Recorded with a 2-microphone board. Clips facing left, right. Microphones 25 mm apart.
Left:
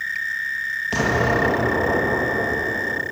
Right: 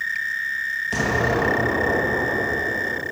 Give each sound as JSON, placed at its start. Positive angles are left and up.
{"t": 0.9, "sound": "an explosion", "side_deg": 20, "distance_m": 1.3}